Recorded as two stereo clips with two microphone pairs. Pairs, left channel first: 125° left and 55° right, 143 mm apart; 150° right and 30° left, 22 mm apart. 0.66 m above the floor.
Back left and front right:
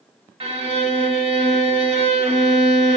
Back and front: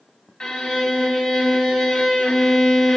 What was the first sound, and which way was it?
A violin, 100° right.